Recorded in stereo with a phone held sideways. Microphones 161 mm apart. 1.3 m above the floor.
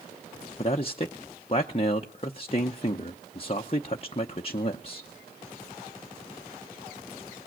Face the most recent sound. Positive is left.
turn(degrees=40)  # may be behind; listen again after turning